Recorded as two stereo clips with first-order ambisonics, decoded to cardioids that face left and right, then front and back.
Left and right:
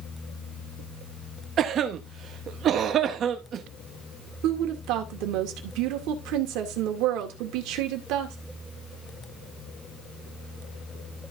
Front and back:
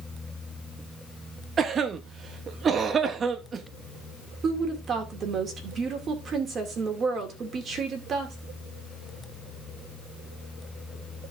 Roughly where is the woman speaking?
Behind right.